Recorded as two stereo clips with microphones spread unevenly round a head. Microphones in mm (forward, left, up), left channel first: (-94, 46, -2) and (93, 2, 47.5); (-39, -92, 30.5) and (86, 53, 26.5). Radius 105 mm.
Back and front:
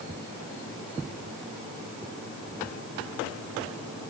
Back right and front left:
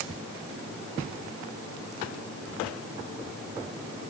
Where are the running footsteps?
No running footsteps in this recording.